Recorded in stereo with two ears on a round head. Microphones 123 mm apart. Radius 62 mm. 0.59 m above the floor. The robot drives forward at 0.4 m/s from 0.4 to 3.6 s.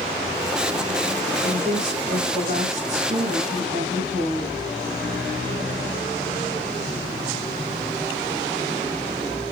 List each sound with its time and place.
1.4 s a woman speaking: 60° right (ahead or behind), 3.5 m; by 4.5 s 50° right (ahead or behind), 4 m